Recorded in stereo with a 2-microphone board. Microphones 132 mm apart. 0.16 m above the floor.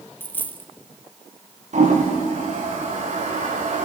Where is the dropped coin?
15° left (ahead or behind), 1.1 m.